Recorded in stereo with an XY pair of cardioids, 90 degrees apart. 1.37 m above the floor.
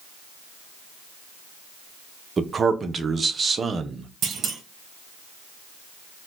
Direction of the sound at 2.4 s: 40° right.